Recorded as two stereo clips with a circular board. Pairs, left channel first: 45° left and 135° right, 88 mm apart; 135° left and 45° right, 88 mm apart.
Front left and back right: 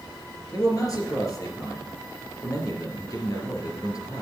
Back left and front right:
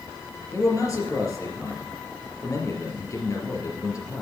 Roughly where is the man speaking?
Left.